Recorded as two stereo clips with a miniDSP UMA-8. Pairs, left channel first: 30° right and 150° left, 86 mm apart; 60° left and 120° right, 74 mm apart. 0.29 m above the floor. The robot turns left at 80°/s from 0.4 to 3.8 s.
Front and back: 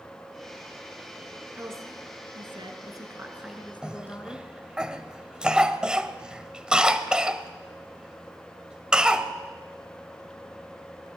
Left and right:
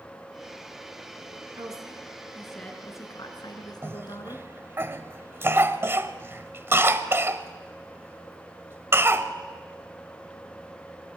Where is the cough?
140° right, 1.3 m.